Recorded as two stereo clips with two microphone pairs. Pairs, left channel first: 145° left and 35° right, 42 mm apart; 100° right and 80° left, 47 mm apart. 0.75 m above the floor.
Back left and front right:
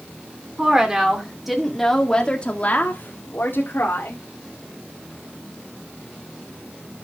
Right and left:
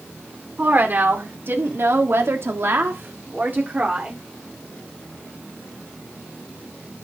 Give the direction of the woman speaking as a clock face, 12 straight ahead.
11 o'clock.